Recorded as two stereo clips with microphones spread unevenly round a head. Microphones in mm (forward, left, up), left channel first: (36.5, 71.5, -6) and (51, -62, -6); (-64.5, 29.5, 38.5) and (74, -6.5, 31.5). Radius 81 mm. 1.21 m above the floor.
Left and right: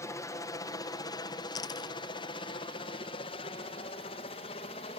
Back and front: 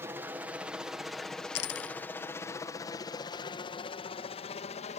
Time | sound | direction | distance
0.0 | a helicopter | 50° left | ?
1.6 | a dropped coin | 165° left | ?